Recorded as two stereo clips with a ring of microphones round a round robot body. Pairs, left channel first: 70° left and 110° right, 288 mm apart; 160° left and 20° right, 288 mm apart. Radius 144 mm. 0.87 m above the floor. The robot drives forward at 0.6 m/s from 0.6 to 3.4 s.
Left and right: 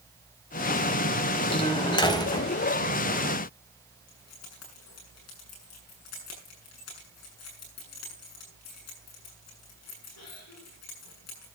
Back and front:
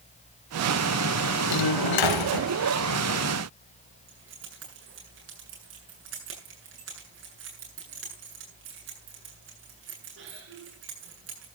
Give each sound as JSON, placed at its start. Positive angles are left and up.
{"t": 1.5, "sound": "a door slam", "azimuth_deg": 140, "distance_m": 3.5}
{"t": 4.1, "sound": "keys jangling", "azimuth_deg": 25, "distance_m": 7.5}